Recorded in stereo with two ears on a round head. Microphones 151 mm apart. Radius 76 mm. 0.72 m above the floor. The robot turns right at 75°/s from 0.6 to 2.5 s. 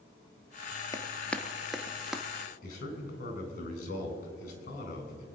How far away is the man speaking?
About 4 m.